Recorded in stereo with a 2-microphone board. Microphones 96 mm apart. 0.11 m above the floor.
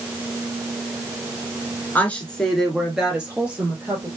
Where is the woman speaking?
20° left (ahead or behind), 1.7 m; by 4.1 s 20° right (ahead or behind), 3.5 m.